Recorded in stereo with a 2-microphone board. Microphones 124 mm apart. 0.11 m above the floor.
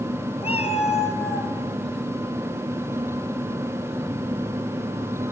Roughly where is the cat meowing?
Left.